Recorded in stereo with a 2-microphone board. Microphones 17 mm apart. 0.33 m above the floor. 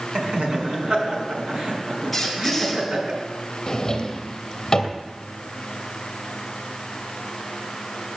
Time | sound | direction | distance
0.1 | laughter | 70° right (ahead or behind) | 4 m
2.1 | a squeak | centre (ahead or behind) | 4.5 m
3.7 | a drawer | 25° left (ahead or behind) | 2.5 m